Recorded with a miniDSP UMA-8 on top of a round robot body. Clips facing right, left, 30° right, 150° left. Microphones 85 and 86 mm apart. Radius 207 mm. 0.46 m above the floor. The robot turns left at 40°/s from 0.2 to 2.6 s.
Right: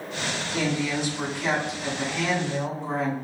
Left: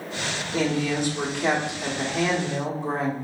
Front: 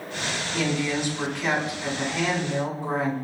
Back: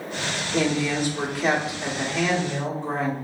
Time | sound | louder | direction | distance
0.5 | a woman speaking | left 3 dB, back 3 dB | 135° left | 1.9 m